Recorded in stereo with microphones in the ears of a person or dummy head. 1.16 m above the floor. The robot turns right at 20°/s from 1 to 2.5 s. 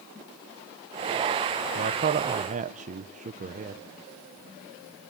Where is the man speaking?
40° right (ahead or behind), 0.6 m; by 3.8 s 30° right (ahead or behind), 0.6 m.